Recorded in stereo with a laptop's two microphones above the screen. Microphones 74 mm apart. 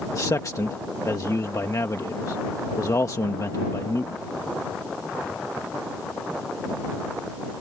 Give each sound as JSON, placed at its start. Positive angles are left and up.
{"t": 0.1, "sound": "a man speaking", "side_deg": 50}